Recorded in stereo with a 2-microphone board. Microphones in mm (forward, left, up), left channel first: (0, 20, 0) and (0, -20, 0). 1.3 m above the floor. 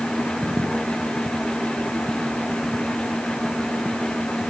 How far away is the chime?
I don't hear a chime.